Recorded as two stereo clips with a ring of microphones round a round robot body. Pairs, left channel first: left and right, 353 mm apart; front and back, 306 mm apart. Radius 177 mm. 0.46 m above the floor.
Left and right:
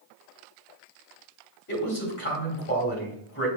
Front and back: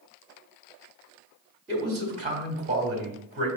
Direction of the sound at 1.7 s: 125° left.